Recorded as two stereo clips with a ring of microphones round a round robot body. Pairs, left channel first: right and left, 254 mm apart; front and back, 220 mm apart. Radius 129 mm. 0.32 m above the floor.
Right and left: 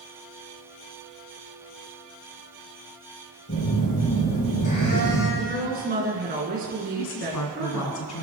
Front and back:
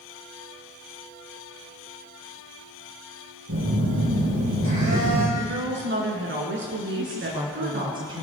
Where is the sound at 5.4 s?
145° left, 4.5 m.